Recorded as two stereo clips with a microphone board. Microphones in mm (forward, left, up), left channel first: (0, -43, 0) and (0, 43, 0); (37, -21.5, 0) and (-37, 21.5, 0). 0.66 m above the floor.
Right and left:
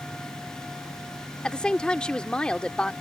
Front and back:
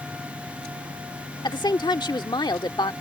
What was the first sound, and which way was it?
A woman speaking, 10° right.